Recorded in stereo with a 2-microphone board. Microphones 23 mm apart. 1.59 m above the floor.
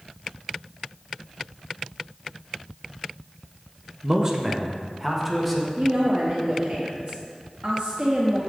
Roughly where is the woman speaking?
Right.